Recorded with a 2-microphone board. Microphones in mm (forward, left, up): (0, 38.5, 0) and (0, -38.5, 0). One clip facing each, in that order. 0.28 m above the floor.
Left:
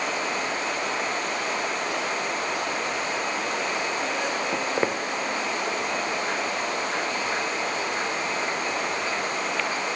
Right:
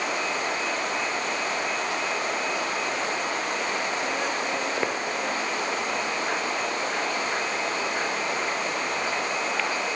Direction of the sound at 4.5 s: 30° left (ahead or behind).